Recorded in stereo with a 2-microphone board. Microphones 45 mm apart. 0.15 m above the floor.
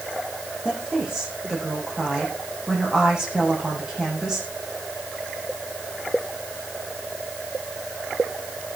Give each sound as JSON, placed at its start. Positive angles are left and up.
{"t": 0.7, "sound": "a woman speaking", "side_deg": -20, "distance_m": 8.5}